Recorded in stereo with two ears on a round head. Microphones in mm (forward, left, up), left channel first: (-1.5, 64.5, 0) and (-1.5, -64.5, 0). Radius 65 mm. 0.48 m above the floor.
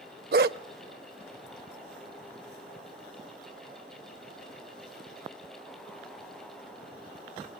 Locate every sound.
0.3 s a dog barking: 70° right (ahead or behind), 0.6 m